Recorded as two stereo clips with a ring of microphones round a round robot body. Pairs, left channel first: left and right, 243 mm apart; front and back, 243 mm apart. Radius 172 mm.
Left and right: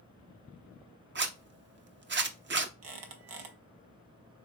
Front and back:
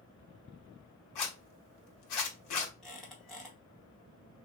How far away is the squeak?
About 0.7 m.